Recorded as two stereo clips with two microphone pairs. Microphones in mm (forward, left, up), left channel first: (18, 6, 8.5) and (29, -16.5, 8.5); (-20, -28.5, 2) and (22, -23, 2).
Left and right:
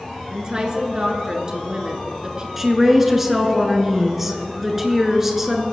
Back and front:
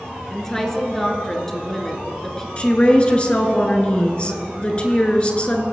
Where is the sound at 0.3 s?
100° right, 1.7 m.